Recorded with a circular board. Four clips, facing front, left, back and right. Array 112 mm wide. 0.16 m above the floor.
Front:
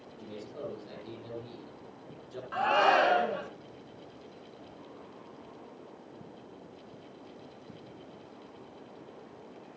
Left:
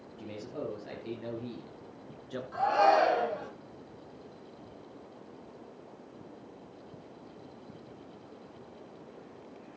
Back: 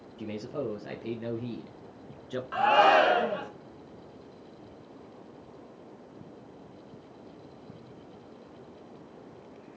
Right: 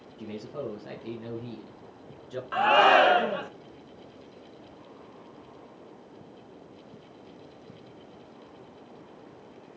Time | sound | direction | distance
0.2 | a man speaking | 175° right | 4 m
2.5 | a shout | 100° right | 1.9 m